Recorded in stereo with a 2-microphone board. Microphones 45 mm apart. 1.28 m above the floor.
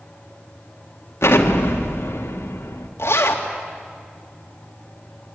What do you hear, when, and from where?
1.2 s an explosion: 85° left, 2 m
3.0 s a zipper: 75° left (ahead or behind), 2.5 m